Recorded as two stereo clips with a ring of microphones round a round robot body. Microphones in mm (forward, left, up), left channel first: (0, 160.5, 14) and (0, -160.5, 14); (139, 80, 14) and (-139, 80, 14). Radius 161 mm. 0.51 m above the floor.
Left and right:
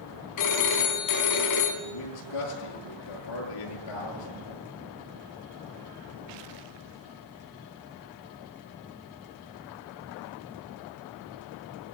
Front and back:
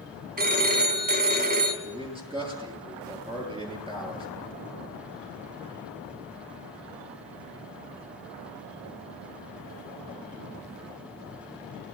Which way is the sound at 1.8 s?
110° left.